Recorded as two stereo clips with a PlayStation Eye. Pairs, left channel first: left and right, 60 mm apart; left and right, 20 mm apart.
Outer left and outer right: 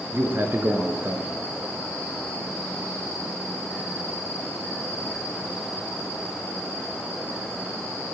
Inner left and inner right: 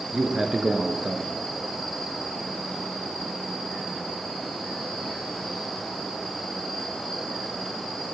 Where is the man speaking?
45° right (ahead or behind), 1.5 m.